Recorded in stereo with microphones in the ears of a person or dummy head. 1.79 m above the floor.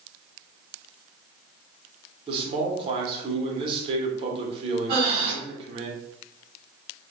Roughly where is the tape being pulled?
I don't hear tape being pulled.